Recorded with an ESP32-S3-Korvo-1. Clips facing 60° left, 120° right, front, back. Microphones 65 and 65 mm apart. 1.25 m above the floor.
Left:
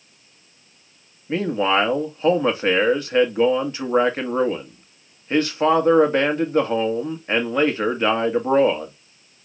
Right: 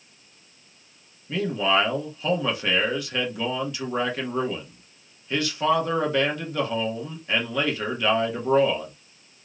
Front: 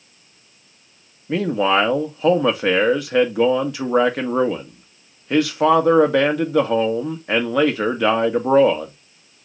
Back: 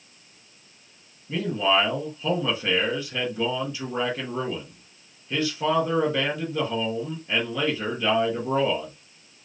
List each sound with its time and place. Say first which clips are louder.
1.3 s a man speaking: left 3 dB, front 5 dB; 5° left, 1.3 m